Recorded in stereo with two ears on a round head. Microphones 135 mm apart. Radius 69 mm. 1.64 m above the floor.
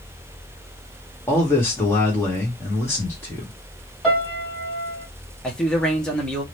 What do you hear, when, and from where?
1.3 s a man speaking: 15° left (ahead or behind), 1.5 m
4.0 s a piano: centre (ahead or behind), 2.5 m
5.4 s a man speaking: 5° left (ahead or behind), 1.0 m